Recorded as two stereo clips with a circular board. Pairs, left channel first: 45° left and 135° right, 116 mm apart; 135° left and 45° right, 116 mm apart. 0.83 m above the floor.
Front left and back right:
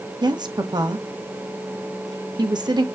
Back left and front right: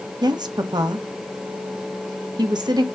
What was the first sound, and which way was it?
A woman speaking, 90° right.